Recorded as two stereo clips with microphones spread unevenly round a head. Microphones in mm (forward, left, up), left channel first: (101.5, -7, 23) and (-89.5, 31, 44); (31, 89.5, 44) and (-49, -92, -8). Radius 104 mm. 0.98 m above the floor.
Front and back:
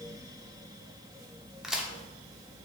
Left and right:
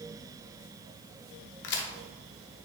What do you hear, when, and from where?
1.6 s a crack: 85° left, 0.9 m